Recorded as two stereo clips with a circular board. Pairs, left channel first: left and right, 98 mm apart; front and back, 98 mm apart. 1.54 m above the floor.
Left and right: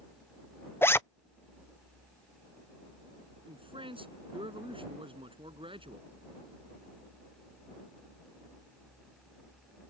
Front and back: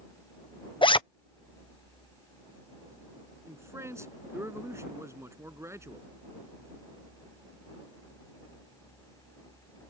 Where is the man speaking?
120° right.